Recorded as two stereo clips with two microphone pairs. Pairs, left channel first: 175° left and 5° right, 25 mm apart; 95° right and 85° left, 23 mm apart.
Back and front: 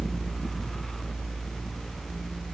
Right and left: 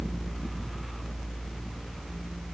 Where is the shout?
No shout in this recording.